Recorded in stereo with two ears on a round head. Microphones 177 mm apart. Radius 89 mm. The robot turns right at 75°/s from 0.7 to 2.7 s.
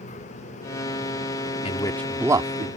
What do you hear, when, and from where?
1.6 s a man speaking: 35° left (ahead or behind); by 2.7 s 45° right (ahead or behind)